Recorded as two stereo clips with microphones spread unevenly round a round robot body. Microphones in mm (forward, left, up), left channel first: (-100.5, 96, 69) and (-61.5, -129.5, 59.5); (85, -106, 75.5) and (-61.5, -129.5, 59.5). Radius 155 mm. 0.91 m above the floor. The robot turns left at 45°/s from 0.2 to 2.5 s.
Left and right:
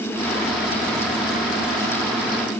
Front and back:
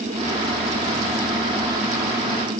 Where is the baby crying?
No baby crying in this recording.